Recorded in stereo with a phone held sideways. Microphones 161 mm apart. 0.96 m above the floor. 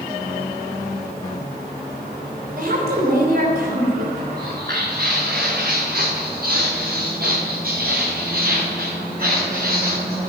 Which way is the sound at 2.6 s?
65° right (ahead or behind).